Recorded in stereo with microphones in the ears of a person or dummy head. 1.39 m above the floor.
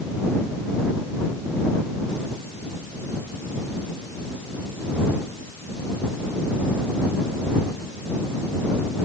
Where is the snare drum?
No snare drum in this recording.